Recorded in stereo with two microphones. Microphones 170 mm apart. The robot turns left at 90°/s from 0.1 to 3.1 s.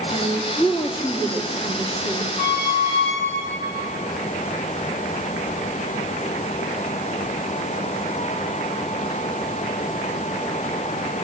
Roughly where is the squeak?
Right.